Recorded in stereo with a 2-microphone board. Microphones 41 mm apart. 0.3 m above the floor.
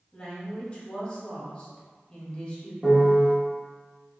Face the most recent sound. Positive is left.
turn(degrees=-20)  # may be behind; listen again after turning